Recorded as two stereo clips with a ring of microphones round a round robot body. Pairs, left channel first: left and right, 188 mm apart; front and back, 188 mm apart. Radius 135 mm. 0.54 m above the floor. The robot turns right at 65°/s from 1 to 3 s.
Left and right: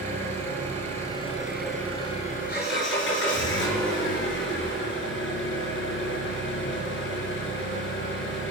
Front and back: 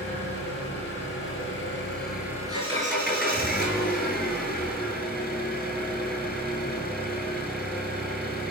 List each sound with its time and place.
0.0 s an engine running: 45° right, 3.5 m; by 8.5 s 85° left, 3.5 m